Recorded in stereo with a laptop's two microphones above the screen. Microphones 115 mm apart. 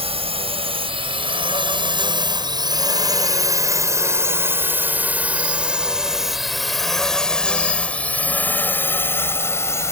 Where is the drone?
55° right (ahead or behind); by 9.9 s 25° left (ahead or behind).